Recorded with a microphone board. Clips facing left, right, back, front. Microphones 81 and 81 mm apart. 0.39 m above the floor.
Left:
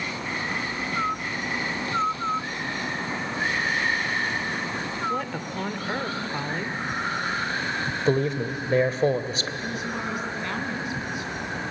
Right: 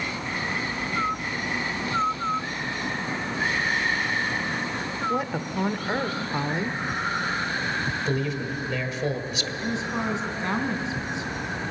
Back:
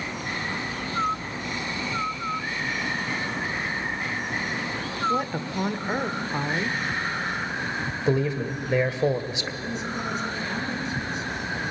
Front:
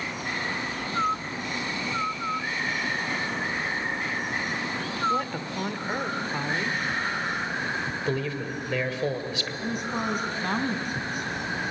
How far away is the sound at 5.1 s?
About 1.0 m.